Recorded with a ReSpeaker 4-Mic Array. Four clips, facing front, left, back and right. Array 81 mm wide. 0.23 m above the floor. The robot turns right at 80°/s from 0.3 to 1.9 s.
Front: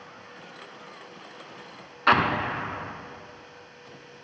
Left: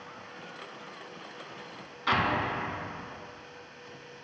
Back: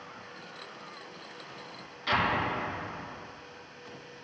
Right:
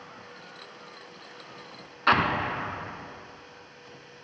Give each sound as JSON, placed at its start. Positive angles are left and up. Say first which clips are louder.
{"t": 2.1, "sound": "an explosion", "louder": "right 4 dB, front 6 dB", "azimuth_deg": -35, "distance_m": 0.5}